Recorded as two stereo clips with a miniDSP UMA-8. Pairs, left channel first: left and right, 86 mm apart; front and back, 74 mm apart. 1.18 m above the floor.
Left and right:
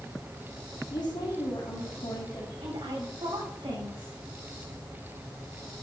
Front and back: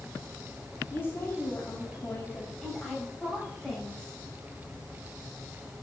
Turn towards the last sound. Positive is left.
turn(degrees=-85)